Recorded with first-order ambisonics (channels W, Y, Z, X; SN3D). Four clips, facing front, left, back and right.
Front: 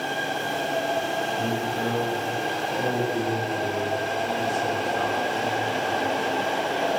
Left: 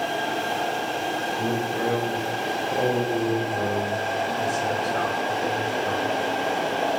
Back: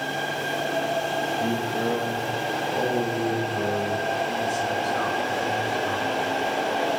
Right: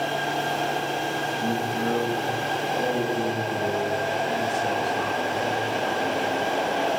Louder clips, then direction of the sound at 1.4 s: Left 1 dB, back 1 dB; 100° left.